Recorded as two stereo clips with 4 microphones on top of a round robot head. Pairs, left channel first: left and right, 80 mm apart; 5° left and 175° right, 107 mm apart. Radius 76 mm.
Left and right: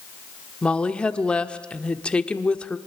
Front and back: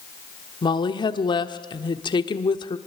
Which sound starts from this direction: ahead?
A woman speaking, at 0.6 s.